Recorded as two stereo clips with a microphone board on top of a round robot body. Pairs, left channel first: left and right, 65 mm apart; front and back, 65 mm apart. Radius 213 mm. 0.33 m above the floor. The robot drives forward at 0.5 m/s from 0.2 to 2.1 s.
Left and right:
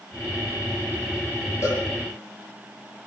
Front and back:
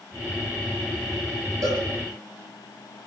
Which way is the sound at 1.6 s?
140° left.